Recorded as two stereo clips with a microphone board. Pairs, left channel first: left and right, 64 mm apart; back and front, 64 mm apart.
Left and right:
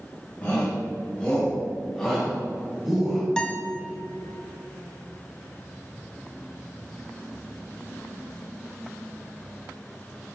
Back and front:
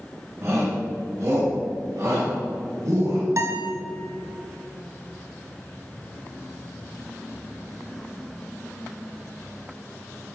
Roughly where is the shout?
Ahead left.